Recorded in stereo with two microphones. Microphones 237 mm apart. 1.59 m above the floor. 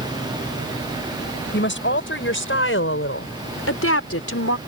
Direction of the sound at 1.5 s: 55° left (ahead or behind).